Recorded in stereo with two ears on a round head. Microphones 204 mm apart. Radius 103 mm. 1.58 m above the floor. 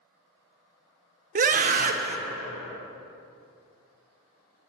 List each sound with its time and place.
1.4 s a scream: 35° right (ahead or behind), 0.8 m